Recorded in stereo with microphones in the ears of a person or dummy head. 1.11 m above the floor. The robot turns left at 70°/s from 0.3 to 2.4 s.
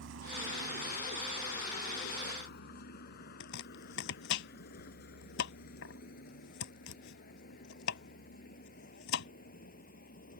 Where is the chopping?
70° left (ahead or behind).